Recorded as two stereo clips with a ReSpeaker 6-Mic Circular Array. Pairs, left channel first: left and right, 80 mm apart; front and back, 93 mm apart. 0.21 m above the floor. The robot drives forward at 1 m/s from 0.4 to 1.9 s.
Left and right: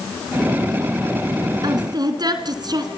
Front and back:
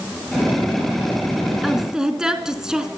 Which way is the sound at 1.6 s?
90° right.